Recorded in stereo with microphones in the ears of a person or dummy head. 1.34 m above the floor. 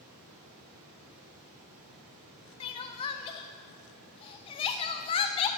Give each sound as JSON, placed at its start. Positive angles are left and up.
{"t": 0.0, "sound": "running water", "side_deg": -45, "distance_m": 2.5}
{"t": 2.6, "sound": "crying", "side_deg": 35, "distance_m": 0.5}